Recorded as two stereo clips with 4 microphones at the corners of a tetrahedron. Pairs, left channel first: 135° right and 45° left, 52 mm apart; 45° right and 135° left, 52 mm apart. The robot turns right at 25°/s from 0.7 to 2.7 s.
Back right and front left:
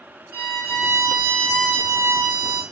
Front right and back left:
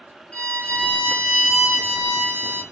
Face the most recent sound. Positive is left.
turn(degrees=70)